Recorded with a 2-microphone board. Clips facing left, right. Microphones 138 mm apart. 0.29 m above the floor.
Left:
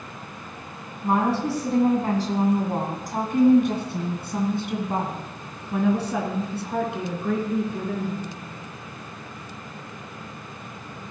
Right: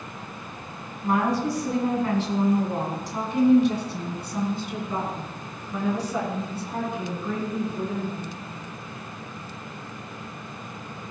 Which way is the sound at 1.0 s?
25° left (ahead or behind).